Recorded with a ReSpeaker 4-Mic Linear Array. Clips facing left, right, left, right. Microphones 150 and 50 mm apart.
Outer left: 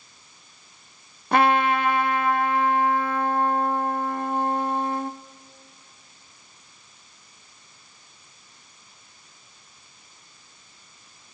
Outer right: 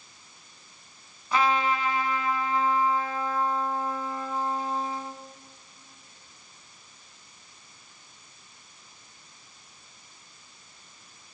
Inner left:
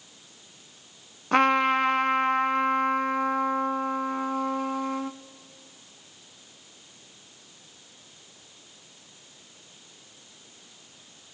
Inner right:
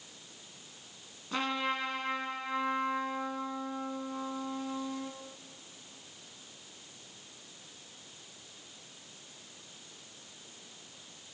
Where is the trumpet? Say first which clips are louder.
Outer left 5 dB, inner left 12 dB; 65° left (ahead or behind), 0.5 m.